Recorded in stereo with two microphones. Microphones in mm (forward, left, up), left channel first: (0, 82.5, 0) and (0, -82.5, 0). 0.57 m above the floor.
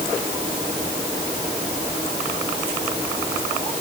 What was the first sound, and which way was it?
Only background noise.